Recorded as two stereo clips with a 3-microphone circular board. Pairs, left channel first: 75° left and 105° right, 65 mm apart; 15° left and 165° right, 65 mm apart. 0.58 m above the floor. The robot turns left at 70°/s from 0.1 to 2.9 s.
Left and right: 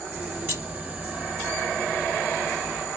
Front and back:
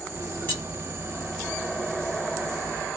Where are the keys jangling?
45° right, 1.4 m; by 0.6 s 55° right, 1.4 m.